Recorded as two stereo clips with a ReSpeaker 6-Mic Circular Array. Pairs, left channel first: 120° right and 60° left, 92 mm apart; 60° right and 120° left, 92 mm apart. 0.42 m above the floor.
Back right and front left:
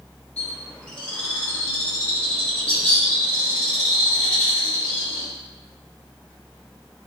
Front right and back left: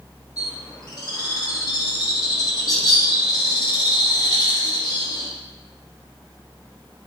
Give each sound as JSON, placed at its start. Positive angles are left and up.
{"t": 0.4, "sound": "a bird", "azimuth_deg": -50, "distance_m": 0.8}